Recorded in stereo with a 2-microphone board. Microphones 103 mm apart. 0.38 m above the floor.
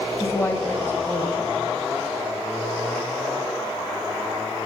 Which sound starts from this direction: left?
A woman speaking, at 0.2 s.